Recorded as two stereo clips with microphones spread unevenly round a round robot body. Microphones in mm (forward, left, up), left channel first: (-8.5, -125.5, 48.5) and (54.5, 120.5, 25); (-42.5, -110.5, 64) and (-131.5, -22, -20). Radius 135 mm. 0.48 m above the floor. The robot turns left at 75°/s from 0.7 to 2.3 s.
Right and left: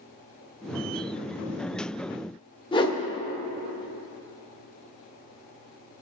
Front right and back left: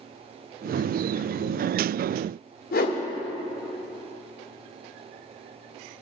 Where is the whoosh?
40° right, 1.2 m.